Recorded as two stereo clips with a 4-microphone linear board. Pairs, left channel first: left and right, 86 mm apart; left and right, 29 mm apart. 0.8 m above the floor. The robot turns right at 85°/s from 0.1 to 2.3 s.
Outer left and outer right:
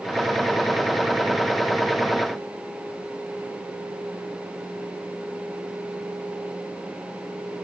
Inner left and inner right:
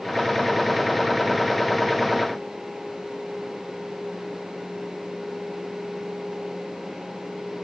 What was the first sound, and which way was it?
Only background noise.